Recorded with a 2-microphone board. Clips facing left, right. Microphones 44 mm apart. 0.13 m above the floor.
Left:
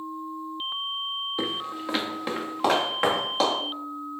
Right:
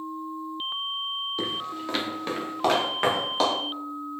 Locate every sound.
1.4 s footsteps: 15° left (ahead or behind), 1.0 m; by 3.5 s centre (ahead or behind), 2.5 m